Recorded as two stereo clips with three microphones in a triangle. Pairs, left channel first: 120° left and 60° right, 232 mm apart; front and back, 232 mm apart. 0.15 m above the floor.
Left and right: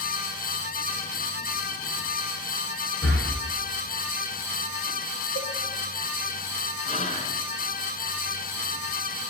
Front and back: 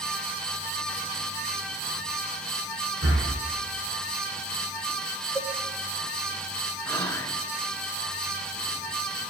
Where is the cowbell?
105° left, 4.5 m.